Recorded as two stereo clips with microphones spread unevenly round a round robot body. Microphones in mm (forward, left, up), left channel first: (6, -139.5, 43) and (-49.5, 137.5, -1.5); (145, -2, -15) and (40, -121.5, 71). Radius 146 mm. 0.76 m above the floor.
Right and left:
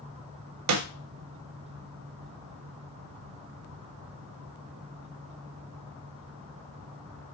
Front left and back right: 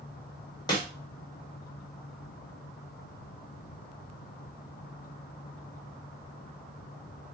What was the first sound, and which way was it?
A snare drum, 100° left.